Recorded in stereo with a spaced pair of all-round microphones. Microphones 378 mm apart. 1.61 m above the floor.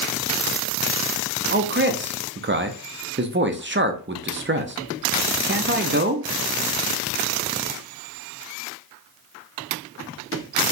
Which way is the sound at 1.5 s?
30° right (ahead or behind).